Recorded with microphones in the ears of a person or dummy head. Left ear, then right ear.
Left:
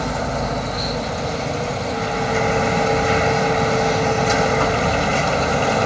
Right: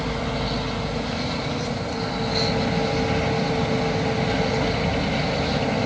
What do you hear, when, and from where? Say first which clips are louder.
0.0 s a machine running: left 4 dB; 55° left (ahead or behind)